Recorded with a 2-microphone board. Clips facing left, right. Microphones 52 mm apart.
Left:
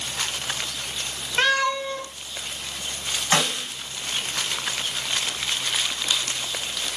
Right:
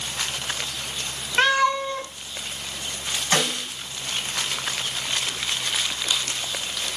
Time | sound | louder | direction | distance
1.4 | a cat meowing | right 2 dB | 10° right (ahead or behind) | 0.6 m
3.3 | a snare drum | left 1 dB | 25° left (ahead or behind) | 2.5 m